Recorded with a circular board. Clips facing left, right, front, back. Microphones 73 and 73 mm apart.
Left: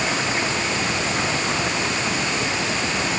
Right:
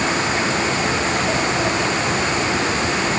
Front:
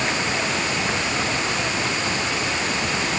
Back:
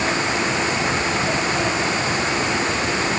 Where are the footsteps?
No footsteps in this recording.